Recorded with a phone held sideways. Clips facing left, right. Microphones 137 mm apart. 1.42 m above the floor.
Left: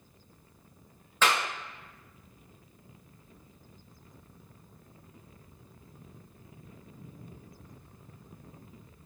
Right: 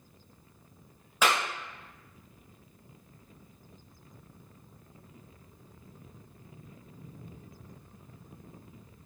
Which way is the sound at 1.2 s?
10° right (ahead or behind).